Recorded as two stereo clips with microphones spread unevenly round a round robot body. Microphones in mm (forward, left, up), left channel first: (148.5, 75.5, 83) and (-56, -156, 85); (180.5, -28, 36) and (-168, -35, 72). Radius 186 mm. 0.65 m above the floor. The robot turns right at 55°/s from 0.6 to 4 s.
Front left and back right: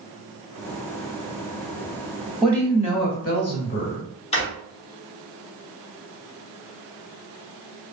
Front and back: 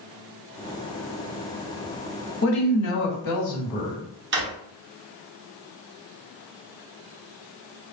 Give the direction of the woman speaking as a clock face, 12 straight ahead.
2 o'clock.